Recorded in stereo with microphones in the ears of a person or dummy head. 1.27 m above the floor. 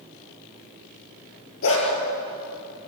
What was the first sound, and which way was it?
A dog barking, 80° left.